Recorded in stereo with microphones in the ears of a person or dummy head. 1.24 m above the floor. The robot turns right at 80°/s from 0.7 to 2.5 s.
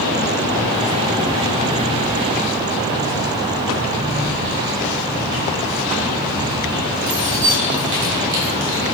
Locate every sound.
4.1 s keys jangling: 70° right (ahead or behind), 3 m